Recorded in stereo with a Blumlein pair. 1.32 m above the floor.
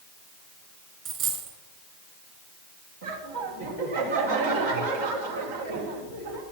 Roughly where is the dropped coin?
Ahead right.